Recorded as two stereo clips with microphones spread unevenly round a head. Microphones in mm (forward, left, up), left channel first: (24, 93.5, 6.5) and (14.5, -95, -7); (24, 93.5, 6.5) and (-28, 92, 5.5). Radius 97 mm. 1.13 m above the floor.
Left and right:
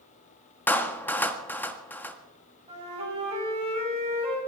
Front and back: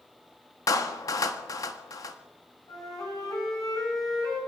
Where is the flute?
30° right, 8 m.